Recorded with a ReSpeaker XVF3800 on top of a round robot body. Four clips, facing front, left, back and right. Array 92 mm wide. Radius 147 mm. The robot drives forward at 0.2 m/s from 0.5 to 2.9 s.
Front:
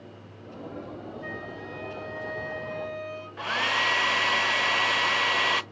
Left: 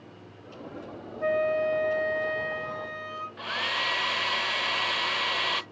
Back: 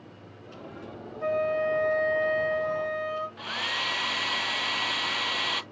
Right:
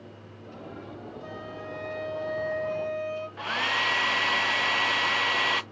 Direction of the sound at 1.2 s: 140° left.